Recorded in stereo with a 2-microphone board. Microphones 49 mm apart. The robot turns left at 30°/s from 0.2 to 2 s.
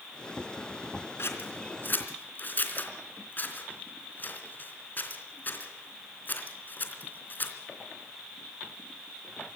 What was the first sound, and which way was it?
Scissors, 60° left (ahead or behind).